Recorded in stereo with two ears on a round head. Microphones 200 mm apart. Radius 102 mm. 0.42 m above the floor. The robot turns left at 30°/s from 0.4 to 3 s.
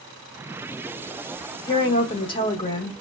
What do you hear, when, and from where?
1.7 s a woman speaking: 20° left (ahead or behind), 0.8 m